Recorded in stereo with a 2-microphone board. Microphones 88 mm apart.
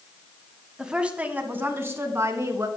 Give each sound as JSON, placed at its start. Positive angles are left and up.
{"t": 0.8, "sound": "a woman speaking", "side_deg": -5, "distance_m": 1.5}